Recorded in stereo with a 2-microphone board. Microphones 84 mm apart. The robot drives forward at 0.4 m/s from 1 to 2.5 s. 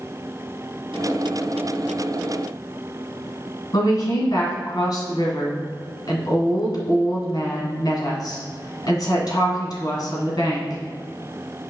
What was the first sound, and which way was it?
A woman speaking, 55° left (ahead or behind).